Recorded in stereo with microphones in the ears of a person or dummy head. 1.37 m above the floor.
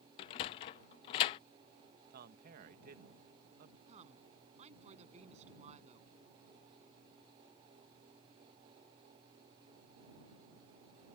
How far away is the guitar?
I don't hear a guitar.